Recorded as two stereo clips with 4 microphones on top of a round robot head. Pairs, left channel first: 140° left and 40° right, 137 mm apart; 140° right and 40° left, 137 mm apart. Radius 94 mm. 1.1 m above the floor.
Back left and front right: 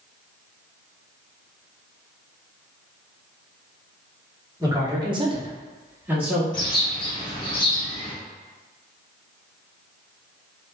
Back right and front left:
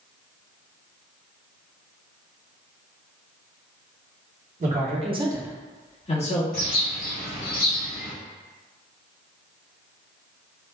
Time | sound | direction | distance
4.6 | a man speaking | 20° left | 1.1 m
6.5 | a bird | 165° right | 0.8 m